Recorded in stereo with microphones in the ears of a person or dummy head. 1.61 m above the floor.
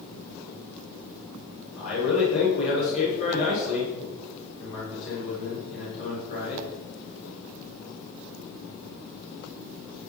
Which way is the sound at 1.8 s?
40° left (ahead or behind).